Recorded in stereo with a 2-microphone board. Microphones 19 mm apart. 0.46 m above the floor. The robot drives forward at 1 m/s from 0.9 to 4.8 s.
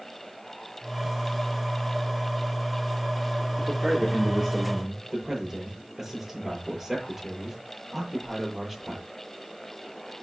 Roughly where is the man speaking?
Centre.